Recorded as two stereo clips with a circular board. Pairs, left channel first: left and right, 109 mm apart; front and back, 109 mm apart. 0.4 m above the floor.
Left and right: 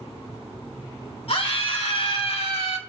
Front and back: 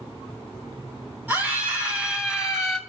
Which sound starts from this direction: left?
A scream, at 1.3 s.